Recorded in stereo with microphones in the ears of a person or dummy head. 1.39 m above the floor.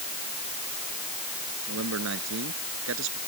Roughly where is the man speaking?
Right.